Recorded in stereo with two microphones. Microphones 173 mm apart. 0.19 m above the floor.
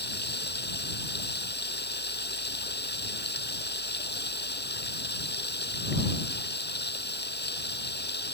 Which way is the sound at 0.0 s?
80° left.